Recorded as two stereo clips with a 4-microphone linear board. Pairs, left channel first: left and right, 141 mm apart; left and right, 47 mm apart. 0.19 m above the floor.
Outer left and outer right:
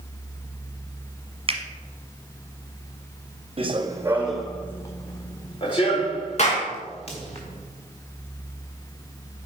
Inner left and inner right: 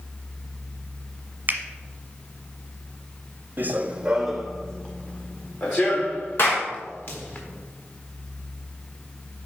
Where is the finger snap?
40° right (ahead or behind), 1.2 m.